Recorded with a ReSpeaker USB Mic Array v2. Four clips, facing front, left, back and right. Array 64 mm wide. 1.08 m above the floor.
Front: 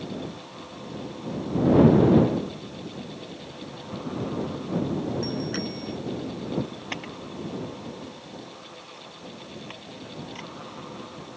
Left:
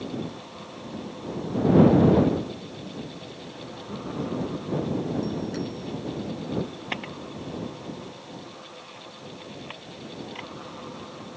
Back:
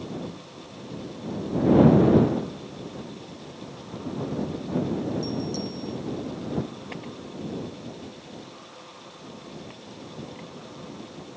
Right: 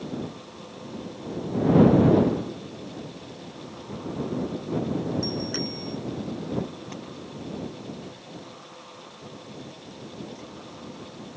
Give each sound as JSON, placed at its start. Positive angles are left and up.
{"t": 5.2, "sound": "a bicycle bell", "azimuth_deg": -20}
{"t": 6.9, "sound": "a camera shutter", "azimuth_deg": 70}